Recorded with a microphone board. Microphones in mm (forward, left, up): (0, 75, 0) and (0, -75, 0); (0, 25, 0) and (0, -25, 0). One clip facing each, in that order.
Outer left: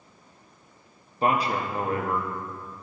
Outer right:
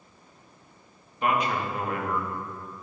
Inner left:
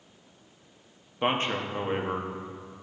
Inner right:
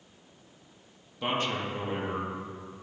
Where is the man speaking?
35° left (ahead or behind), 1.0 m.